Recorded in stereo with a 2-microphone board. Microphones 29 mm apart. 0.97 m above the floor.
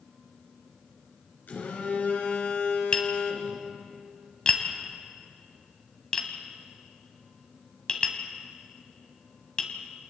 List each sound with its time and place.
1.5 s a phone buzzing: 65° left (ahead or behind), 4.5 m
2.9 s tapping: 25° left (ahead or behind), 2.5 m